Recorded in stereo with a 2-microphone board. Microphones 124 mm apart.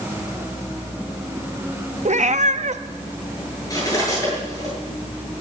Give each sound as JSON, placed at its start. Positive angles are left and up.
{"t": 2.0, "sound": "a cat meowing", "side_deg": -70, "distance_m": 0.7}
{"t": 3.7, "sound": "cutlery clinking", "side_deg": 30, "distance_m": 8.5}